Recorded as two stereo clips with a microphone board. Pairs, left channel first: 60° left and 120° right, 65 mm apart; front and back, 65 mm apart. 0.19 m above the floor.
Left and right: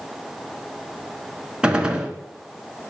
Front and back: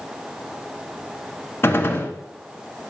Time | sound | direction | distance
1.6 | a gunshot | 45° right | 1.0 m